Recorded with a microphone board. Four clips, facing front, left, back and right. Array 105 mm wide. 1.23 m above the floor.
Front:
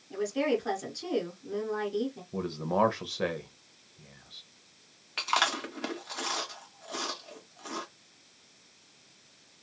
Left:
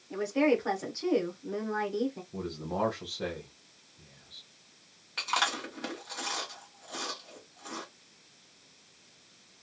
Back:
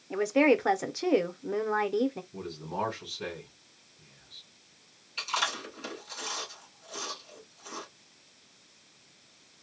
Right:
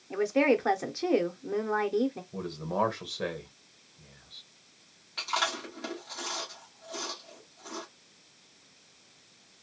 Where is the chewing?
15° left, 1.4 m.